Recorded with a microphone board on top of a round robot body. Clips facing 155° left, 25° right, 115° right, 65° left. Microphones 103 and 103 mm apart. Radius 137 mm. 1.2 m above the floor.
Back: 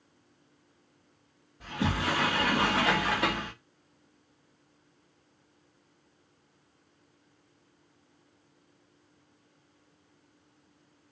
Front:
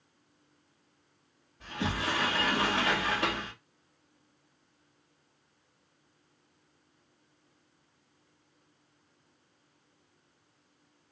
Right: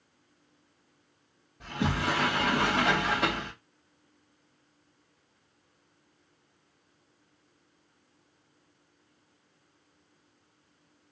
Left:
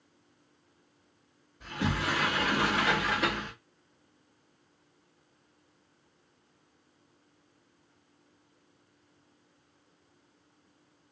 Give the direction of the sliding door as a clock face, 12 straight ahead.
4 o'clock.